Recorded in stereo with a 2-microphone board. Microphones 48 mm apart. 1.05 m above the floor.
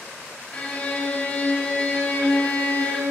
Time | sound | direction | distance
0.5 | a violin | 25° left (ahead or behind) | 1.6 m